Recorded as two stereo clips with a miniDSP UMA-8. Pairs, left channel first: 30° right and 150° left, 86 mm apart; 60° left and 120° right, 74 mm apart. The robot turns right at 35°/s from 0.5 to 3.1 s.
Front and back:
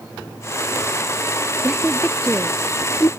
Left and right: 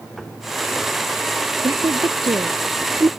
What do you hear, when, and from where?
1.6 s a woman speaking: 130° right; by 3.1 s 80° right